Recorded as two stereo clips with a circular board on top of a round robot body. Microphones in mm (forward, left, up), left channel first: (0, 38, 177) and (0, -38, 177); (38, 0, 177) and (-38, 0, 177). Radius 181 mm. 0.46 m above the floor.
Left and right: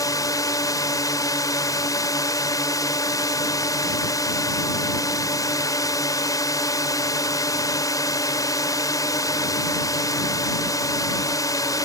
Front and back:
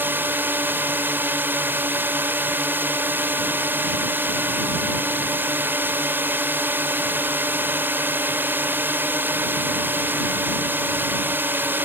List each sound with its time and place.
0.0 s a drone: 120° left